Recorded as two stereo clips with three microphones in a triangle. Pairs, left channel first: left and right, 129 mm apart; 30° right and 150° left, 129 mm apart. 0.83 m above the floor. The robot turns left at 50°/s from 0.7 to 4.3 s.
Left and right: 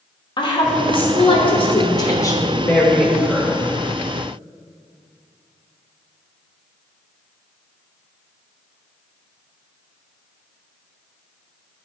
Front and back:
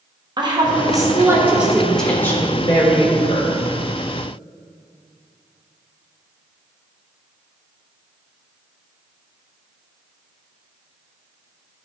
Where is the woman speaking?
115° left, 1.0 m; by 3.7 s 30° right, 1.0 m.